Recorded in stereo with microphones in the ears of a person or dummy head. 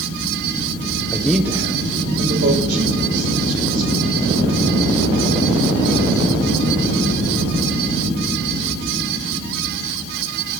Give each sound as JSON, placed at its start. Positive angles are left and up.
{"t": 1.1, "sound": "a man speaking", "side_deg": 20, "distance_m": 0.8}